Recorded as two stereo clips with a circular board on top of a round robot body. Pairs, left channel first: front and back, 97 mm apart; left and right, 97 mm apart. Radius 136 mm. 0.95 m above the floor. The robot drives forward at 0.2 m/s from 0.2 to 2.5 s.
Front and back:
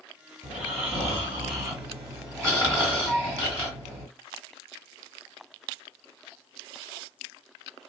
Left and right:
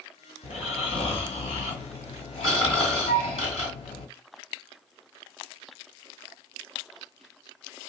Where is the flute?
90° left, 1.3 m.